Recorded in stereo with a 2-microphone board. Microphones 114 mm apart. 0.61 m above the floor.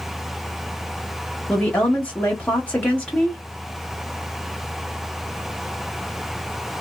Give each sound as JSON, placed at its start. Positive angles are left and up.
{"t": 1.5, "sound": "a woman speaking", "side_deg": 10, "distance_m": 0.9}